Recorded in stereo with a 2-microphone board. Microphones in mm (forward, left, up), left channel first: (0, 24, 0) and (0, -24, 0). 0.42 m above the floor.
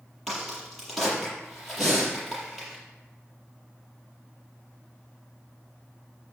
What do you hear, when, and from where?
0.3 s a crack: 5° left (ahead or behind), 5.5 m
1.8 s breathing: 10° left (ahead or behind), 4 m